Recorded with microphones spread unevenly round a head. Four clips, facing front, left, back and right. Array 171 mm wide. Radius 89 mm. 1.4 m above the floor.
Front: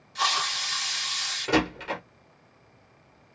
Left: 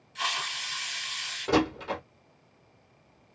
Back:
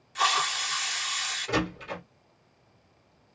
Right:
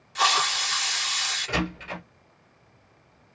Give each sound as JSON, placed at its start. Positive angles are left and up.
{"t": 0.1, "sound": "a hiss", "azimuth_deg": -85, "distance_m": 0.9}
{"t": 1.5, "sound": "a door slam", "azimuth_deg": 45, "distance_m": 1.8}